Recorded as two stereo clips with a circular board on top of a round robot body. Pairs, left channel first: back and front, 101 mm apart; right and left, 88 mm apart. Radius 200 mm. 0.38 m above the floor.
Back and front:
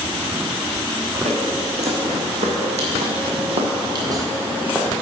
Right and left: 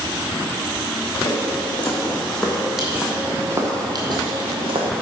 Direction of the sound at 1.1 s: 20° right.